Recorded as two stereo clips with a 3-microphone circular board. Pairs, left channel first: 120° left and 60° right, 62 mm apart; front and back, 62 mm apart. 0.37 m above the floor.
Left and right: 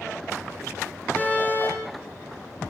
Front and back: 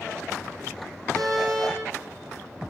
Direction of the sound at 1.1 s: 175° right.